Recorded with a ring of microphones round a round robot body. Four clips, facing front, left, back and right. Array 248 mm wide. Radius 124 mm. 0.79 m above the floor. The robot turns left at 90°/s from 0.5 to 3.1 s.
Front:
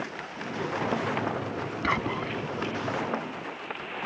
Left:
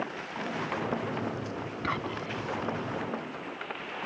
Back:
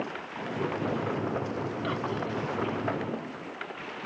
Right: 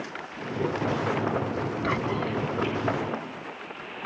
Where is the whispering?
Straight ahead; by 2.4 s 50° right.